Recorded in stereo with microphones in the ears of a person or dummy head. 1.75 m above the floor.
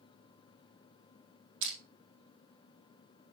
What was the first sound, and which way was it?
Crushing, 80° right.